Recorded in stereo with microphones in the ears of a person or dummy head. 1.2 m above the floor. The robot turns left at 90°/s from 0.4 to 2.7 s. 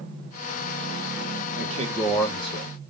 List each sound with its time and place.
1.6 s a man speaking: 130° right, 0.8 m; by 2.9 s 130° left, 0.8 m